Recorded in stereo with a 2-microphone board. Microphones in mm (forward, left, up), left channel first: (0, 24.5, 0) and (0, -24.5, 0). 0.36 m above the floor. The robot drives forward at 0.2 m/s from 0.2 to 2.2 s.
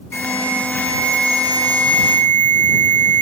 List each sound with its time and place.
0.1 s an alarm: 60° left (ahead or behind), 1.2 m; by 3.2 s 45° left (ahead or behind), 1.4 m